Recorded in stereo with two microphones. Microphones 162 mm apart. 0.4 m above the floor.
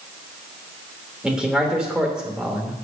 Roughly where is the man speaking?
Centre.